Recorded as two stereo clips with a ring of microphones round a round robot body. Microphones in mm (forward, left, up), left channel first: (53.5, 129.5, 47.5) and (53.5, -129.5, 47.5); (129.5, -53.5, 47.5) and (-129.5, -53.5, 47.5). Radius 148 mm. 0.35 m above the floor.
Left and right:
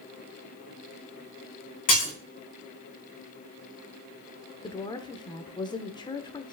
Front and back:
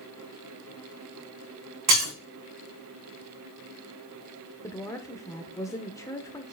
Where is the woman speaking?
55° left, 0.8 m.